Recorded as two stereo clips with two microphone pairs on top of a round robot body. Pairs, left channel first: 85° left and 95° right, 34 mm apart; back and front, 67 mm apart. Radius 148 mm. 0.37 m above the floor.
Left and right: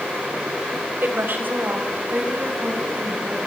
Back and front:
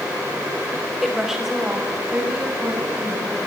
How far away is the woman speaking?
About 3.5 m.